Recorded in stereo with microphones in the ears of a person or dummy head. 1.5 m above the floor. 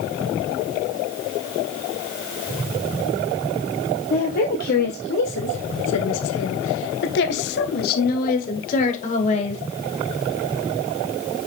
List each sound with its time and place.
4.1 s a woman speaking: 45° left (ahead or behind), 1.5 m; by 9.6 s 35° left (ahead or behind), 2.5 m